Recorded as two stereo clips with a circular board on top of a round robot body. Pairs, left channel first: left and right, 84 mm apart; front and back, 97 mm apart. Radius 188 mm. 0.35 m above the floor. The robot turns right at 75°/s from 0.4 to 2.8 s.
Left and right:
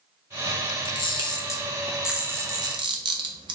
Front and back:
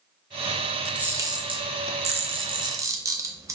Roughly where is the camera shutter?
Left.